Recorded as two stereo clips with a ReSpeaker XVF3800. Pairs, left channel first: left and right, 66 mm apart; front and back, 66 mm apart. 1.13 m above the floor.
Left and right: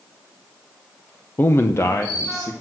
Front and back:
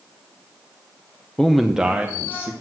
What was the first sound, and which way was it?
A man speaking, 70° left.